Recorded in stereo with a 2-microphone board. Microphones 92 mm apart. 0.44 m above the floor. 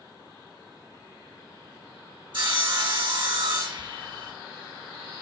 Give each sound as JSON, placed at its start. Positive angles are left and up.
{"t": 2.3, "sound": "sawing", "side_deg": -60, "distance_m": 1.9}